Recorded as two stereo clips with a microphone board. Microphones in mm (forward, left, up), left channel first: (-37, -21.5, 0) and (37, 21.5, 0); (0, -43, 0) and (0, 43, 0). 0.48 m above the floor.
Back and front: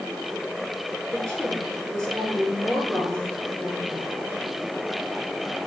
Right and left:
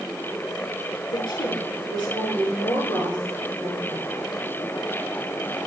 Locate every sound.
1.1 s a woman speaking: 65° right, 7 m